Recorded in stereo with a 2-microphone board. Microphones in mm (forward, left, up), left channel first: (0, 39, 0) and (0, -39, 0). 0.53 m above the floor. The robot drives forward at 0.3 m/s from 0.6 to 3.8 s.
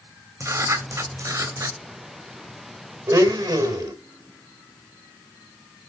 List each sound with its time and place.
0.4 s writing: 40° right (ahead or behind), 2.5 m; by 1.8 s 45° right (ahead or behind), 2 m
3.1 s a blender: 55° right (ahead or behind), 2.5 m; by 3.9 s 60° right (ahead or behind), 2.5 m